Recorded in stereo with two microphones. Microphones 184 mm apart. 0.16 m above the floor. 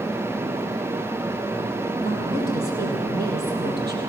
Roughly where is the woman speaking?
Right.